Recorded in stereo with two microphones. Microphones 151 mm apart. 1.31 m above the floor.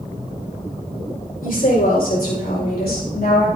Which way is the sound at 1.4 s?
70° left (ahead or behind).